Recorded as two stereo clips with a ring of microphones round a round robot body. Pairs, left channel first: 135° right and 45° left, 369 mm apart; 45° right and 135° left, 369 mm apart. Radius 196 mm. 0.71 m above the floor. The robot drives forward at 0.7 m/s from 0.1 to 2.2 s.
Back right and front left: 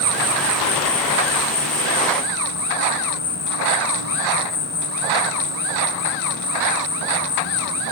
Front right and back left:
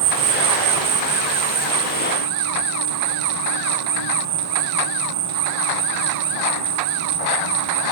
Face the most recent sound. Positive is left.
turn(degrees=160)